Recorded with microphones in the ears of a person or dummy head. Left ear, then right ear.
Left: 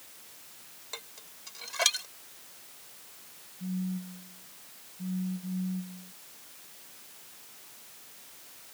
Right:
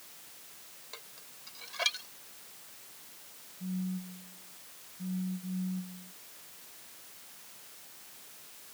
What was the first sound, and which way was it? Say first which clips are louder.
Dishes clattering: left 7 dB; 25° left (ahead or behind).